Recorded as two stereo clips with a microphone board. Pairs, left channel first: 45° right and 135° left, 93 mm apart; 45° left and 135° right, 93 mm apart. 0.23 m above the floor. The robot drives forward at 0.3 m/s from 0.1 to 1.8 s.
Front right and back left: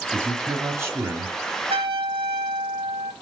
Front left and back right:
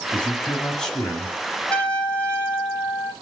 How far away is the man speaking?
About 1.2 m.